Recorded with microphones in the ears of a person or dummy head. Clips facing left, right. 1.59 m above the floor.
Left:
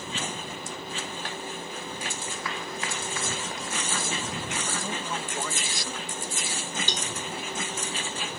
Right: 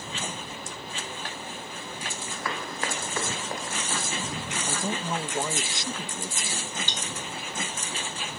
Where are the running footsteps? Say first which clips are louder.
Right 1 dB; 50° right (ahead or behind); by 4.0 s 40° right (ahead or behind).